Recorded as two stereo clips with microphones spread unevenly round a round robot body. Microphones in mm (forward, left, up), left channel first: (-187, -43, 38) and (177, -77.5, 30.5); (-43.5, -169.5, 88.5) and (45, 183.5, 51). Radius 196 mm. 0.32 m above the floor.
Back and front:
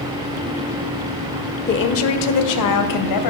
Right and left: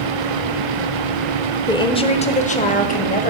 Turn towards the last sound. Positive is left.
turn(degrees=-175)